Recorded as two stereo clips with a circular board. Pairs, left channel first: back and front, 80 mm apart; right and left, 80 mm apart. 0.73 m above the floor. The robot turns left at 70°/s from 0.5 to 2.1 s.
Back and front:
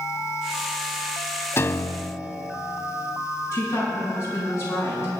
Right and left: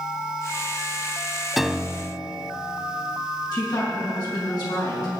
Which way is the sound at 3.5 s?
125° right.